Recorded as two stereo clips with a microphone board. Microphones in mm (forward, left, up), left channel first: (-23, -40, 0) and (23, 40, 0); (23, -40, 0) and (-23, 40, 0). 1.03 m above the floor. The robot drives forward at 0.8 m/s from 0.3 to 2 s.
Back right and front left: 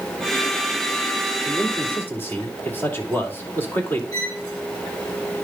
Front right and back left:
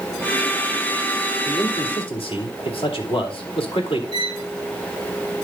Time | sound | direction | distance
1.4 | a man speaking | 45° right | 2.5 m
4.1 | a violin | 70° right | 3.5 m